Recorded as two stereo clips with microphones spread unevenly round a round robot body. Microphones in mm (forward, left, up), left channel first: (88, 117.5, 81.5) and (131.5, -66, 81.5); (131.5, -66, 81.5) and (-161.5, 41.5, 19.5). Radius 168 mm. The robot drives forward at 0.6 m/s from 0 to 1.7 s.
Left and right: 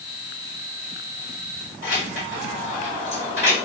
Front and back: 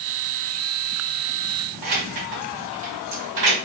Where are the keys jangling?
160° left, 2.5 m.